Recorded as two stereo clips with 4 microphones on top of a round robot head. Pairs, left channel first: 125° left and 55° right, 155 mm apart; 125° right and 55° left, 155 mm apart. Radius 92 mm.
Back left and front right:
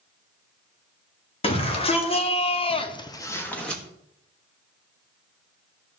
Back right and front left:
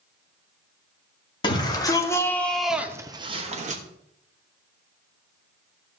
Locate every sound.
1.4 s a shout: 175° left, 2 m; by 3.8 s 40° left, 1.4 m